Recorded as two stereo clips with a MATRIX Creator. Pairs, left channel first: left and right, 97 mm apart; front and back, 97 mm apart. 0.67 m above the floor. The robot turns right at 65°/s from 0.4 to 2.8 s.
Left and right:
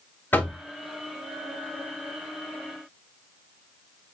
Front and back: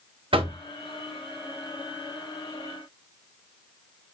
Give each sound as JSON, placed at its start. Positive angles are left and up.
{"t": 0.3, "sound": "knocking", "azimuth_deg": 160, "distance_m": 0.8}